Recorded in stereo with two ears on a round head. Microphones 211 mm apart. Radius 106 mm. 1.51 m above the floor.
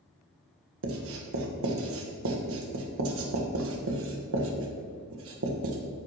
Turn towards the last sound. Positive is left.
turn(degrees=-65)  # may be behind; listen again after turning